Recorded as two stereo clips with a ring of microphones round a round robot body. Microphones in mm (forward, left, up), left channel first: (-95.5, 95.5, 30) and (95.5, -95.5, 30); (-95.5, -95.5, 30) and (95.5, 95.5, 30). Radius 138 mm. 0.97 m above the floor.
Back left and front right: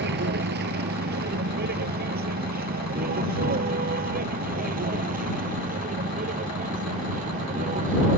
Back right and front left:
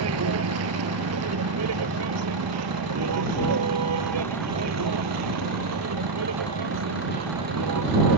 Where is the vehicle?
10° left; by 8.2 s 15° left.